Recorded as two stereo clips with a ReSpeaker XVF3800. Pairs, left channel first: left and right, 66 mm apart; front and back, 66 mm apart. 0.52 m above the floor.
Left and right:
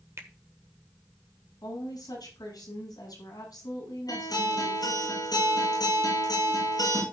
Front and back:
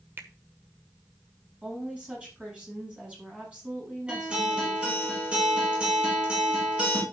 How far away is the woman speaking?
About 7.5 m.